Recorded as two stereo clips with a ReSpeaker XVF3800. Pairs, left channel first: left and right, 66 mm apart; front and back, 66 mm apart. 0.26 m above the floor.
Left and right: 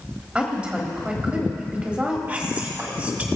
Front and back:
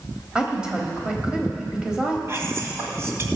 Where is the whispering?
145° right, 1.5 m.